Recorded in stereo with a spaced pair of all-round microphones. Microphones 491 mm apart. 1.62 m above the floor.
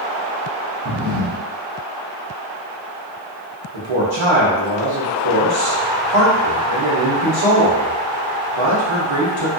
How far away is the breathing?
About 0.8 m.